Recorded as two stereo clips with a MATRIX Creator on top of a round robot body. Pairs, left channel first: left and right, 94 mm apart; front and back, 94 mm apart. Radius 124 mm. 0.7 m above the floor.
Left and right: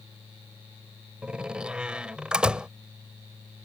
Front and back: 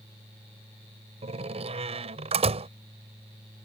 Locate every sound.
1.2 s a door slam: 170° right